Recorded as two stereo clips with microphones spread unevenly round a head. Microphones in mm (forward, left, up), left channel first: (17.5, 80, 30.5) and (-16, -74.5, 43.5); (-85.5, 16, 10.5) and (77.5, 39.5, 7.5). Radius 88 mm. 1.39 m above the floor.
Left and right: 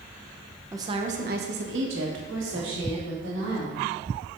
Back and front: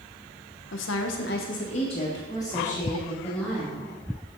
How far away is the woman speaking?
About 0.9 m.